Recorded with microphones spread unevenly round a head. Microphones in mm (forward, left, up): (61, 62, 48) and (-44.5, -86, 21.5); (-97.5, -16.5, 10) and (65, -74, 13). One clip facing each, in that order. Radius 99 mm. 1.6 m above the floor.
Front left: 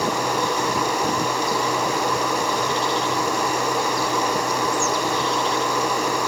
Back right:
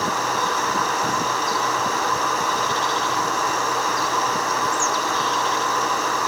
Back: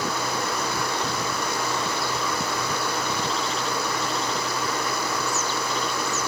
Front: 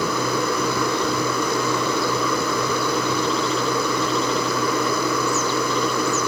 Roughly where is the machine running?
Ahead right.